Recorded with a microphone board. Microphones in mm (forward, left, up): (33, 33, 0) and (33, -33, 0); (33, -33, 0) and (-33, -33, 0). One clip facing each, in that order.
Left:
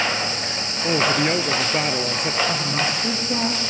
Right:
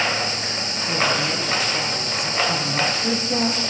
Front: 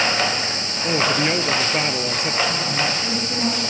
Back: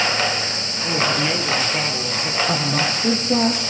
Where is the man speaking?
60° left, 1.7 m.